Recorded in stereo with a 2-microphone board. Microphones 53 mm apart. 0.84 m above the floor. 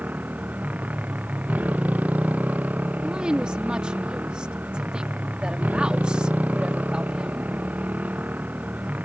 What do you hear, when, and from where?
0.0 s a motorcycle: 30° right (ahead or behind)
3.0 s a woman speaking: 15° right (ahead or behind)